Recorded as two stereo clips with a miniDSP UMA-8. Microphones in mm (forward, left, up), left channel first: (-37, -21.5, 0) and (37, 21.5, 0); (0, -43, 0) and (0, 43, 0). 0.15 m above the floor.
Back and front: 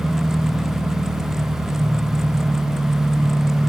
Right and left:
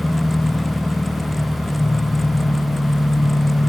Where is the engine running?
20° right, 2.5 m.